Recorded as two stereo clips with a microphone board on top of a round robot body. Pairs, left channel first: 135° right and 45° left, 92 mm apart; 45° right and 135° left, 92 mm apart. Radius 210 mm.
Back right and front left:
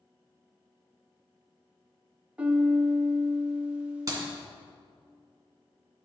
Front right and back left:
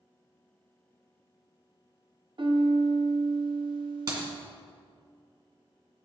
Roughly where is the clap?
Left.